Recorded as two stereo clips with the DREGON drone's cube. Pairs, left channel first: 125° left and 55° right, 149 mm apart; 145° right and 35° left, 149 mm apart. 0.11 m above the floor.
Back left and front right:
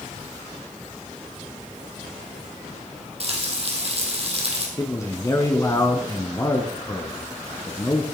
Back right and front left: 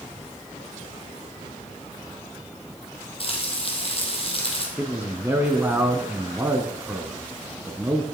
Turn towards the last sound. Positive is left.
turn(degrees=90)